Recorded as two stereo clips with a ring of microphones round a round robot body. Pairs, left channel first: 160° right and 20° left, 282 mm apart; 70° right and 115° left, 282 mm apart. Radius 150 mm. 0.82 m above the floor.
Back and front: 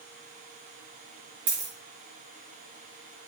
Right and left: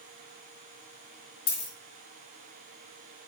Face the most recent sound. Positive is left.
turn(degrees=-30)